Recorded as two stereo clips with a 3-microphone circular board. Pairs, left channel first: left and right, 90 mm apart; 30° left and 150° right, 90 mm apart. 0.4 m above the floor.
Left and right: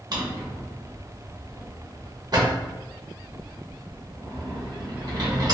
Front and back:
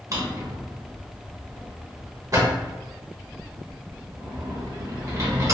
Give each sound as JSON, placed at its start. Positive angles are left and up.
{"t": 0.1, "sound": "a drawer", "azimuth_deg": -110, "distance_m": 0.8}